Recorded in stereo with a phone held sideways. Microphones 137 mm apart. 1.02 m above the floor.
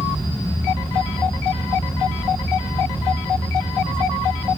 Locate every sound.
0.0 s a fan: 20° left (ahead or behind), 5 m